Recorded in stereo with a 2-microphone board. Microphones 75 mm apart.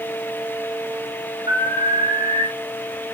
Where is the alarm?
80° right, 7 m.